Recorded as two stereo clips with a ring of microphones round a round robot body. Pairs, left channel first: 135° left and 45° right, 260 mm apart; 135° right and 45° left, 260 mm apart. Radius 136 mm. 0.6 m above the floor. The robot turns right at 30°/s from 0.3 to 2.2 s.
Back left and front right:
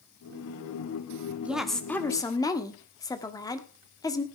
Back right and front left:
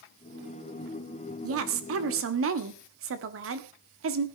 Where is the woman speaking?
40° left, 1.5 m; by 4.3 s 60° left, 1.5 m.